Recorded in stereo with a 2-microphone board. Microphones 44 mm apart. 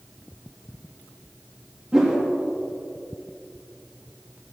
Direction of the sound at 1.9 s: 5° right (ahead or behind).